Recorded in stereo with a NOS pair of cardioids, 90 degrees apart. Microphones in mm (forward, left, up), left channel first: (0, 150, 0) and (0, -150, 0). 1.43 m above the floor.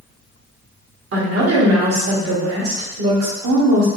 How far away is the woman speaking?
About 1.6 m.